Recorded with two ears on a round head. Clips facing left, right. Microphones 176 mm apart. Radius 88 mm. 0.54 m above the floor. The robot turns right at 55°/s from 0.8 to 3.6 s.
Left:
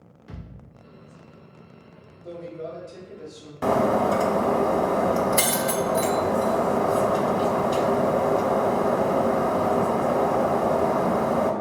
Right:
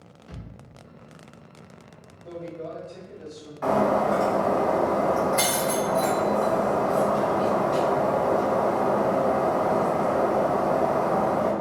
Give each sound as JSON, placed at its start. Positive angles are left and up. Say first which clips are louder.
{"t": 0.3, "sound": "a thud", "louder": "left 1 dB", "side_deg": 25, "distance_m": 1.8}
{"t": 2.2, "sound": "a man speaking", "louder": "left 1 dB", "azimuth_deg": 55, "distance_m": 1.0}
{"t": 3.6, "sound": "breaking glass", "louder": "left 1 dB", "side_deg": 45, "distance_m": 0.5}